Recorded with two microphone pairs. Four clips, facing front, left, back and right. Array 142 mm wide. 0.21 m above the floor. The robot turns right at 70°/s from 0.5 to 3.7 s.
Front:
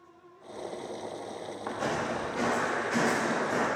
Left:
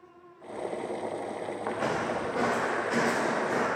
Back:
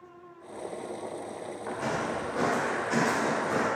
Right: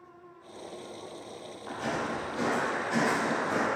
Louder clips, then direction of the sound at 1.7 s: Left 2 dB, even; 75° left.